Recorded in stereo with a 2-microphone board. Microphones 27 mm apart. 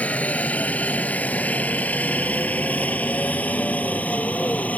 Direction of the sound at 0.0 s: 60° left (ahead or behind).